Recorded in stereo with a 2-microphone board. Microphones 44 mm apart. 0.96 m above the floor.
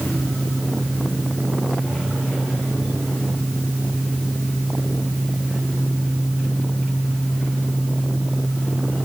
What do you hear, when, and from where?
Only background noise.